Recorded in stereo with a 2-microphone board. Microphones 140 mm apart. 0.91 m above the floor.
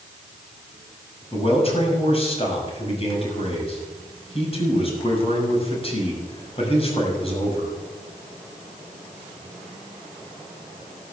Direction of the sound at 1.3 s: 40° left (ahead or behind).